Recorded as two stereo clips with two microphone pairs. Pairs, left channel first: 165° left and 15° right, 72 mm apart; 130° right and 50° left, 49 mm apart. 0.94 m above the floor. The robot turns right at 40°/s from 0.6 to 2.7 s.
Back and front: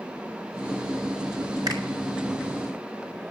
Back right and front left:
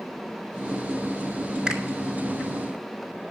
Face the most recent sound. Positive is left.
turn(degrees=15)